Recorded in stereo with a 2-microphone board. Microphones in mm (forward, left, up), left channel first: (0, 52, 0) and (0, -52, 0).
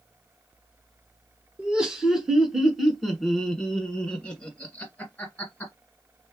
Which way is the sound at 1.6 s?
10° right (ahead or behind).